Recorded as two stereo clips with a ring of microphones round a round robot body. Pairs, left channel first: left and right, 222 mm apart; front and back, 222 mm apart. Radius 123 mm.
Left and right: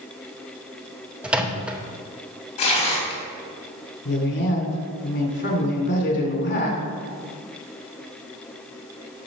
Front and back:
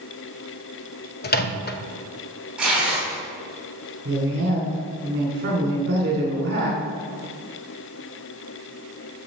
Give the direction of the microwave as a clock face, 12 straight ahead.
12 o'clock.